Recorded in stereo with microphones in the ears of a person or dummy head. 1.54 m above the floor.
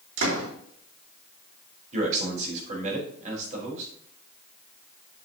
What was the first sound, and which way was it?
A door slam, 75° right (ahead or behind).